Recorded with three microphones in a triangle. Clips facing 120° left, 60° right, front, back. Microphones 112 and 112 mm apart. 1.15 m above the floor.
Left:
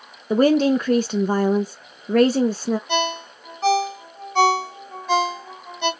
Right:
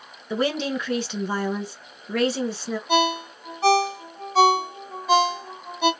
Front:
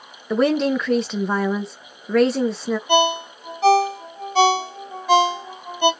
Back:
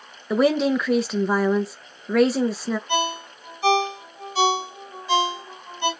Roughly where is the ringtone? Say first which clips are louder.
Right 2 dB, front 7 dB; ahead left.